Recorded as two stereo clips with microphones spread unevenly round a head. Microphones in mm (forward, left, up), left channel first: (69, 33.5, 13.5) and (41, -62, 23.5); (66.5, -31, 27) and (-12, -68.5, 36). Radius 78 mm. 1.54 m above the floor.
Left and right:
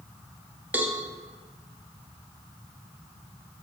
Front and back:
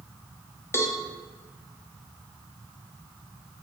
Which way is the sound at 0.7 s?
35° right.